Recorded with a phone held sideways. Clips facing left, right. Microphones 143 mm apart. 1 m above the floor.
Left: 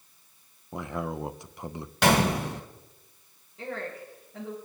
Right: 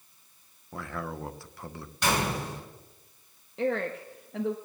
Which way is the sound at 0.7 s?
20° left (ahead or behind).